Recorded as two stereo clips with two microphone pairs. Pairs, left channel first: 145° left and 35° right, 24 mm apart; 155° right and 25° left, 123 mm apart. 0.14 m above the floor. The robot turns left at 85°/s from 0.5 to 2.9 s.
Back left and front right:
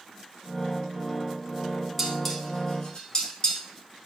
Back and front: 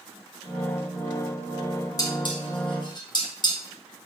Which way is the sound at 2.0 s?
110° right.